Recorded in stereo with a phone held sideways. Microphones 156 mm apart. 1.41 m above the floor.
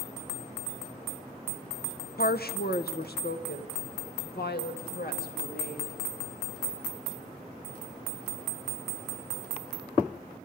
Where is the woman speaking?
80° left, 0.8 m.